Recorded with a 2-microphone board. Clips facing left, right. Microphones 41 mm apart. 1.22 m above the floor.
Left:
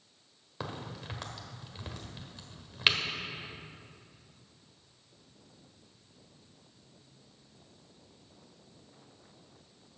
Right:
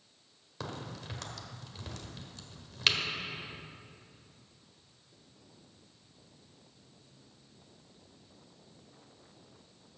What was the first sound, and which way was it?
A crack, 20° left (ahead or behind).